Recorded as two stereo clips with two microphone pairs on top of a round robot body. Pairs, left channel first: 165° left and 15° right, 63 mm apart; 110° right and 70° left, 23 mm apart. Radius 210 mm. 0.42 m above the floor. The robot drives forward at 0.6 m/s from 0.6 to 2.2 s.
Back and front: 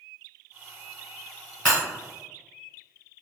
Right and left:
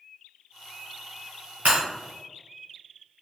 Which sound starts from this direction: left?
Breaking glass, at 1.6 s.